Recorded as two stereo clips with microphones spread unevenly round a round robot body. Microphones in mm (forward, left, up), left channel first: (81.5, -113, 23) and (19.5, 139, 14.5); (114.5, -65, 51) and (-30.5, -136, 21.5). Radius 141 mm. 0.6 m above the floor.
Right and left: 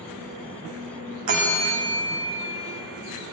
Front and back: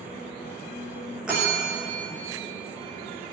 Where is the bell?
120° left, 6.5 m.